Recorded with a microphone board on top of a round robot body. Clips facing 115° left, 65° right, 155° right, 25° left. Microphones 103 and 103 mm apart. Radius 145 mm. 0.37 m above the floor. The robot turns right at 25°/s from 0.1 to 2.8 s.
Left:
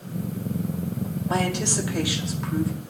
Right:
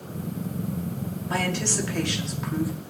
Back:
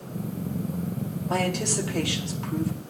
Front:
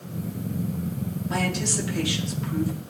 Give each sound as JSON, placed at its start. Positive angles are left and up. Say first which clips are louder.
{"t": 1.3, "sound": "a woman speaking", "louder": "left 2 dB, back 2 dB", "azimuth_deg": 175, "distance_m": 2.0}